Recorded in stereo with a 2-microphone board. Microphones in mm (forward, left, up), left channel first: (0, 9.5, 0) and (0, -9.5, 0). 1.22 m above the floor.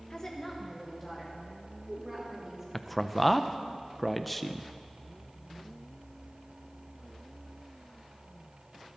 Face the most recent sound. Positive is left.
turn(degrees=5)  # may be behind; listen again after turning